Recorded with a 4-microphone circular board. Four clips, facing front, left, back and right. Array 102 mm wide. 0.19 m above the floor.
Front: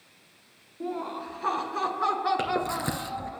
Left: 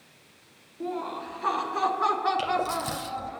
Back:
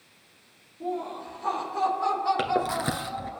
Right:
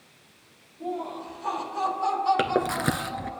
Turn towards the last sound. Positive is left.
turn(degrees=-100)